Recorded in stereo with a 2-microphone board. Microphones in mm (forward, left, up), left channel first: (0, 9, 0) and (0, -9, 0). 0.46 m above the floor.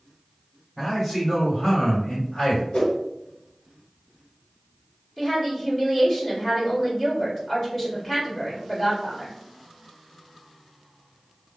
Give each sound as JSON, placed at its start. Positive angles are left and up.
{"t": 0.8, "sound": "a man speaking", "side_deg": 0, "distance_m": 1.5}
{"t": 2.7, "sound": "a whoosh", "side_deg": 60, "distance_m": 1.5}
{"t": 5.2, "sound": "a woman speaking", "side_deg": 10, "distance_m": 1.5}